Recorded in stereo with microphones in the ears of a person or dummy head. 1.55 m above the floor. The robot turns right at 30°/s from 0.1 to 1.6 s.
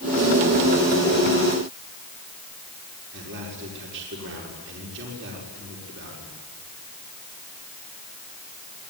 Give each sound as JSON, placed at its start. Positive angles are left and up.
{"t": 3.1, "sound": "a man speaking", "side_deg": -65, "distance_m": 5.5}